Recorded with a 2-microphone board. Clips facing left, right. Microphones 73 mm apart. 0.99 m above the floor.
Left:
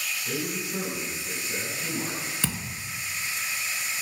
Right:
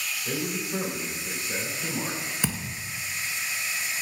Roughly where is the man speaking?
Right.